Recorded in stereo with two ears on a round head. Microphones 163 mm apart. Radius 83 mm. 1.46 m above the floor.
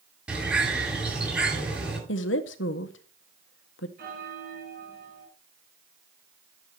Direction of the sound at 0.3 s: 5° right (ahead or behind).